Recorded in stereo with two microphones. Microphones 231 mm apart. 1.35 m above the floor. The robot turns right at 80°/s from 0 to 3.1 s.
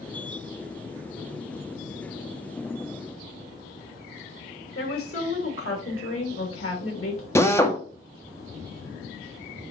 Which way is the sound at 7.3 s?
10° left (ahead or behind).